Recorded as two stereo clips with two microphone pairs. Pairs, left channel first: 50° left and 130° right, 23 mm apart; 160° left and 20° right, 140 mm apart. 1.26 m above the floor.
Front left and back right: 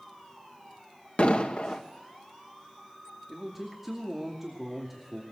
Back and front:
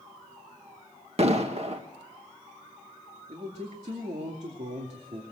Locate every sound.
1.2 s an explosion: 20° left, 1.5 m
3.3 s a man speaking: 55° right, 2.5 m